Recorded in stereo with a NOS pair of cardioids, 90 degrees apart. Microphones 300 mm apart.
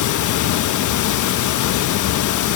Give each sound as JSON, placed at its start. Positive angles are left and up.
{"t": 0.0, "sound": "running water", "azimuth_deg": 70, "distance_m": 1.2}